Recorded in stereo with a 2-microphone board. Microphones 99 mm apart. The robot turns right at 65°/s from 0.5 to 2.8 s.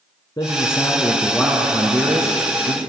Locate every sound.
0.4 s a man speaking: 125° left, 1.7 m; by 2.8 s 85° right, 1.7 m